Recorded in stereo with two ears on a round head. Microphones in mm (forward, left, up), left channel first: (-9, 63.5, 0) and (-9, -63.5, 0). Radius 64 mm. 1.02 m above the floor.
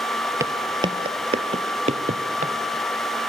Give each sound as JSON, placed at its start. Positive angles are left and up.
{"t": 0.4, "sound": "footsteps", "side_deg": -20, "distance_m": 1.3}